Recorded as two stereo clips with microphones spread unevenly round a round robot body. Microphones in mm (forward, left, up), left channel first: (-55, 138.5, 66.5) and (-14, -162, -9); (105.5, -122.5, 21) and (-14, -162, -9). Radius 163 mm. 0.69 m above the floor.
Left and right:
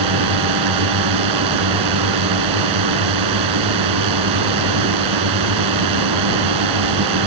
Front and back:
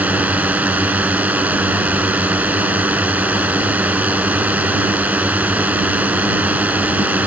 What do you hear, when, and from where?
0.0 s a drone: 85° right